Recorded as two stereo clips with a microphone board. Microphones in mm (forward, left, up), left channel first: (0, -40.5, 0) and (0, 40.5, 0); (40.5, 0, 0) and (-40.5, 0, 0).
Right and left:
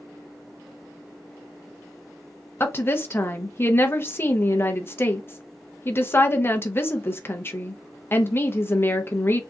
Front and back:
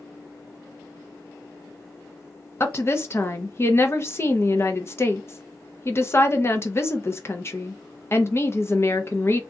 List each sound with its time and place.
2.6 s a woman speaking: 40° right, 0.7 m